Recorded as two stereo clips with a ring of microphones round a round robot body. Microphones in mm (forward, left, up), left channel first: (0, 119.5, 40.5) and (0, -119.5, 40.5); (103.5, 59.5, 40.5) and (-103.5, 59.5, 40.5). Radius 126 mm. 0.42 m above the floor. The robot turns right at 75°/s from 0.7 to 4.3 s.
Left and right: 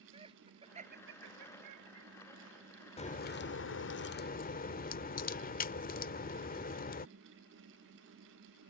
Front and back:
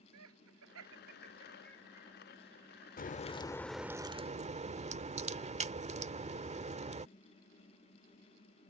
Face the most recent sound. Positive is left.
turn(degrees=130)